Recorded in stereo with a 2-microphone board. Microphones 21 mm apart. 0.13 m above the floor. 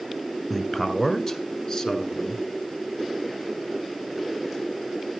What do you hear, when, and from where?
0.5 s a man speaking: 15° left (ahead or behind), 1.7 m; by 2.5 s 40° left (ahead or behind), 1.9 m